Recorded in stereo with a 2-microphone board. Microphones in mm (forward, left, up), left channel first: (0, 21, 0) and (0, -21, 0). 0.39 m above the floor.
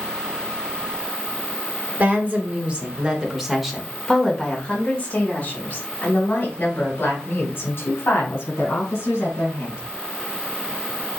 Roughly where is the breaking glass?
I don't hear breaking glass.